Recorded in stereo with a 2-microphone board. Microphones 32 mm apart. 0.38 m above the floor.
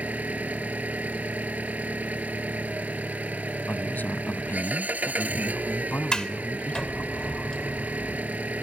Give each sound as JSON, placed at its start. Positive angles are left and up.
{"t": 0.0, "sound": "an engine running", "side_deg": -55}
{"t": 3.7, "sound": "a man speaking", "side_deg": 70}
{"t": 6.1, "sound": "a sliding door", "side_deg": 25}